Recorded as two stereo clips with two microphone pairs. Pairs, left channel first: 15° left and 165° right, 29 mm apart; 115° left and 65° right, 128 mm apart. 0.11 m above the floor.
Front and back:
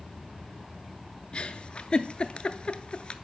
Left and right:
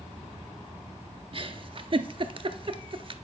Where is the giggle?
30° right, 0.5 m.